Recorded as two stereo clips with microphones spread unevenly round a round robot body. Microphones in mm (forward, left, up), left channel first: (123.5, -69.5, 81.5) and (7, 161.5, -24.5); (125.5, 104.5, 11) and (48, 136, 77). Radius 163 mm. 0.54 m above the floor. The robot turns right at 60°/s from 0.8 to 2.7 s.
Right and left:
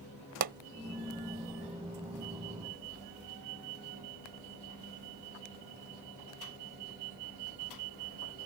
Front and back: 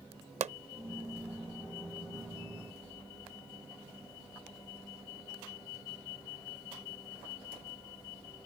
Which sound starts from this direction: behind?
A pop, at 0.4 s.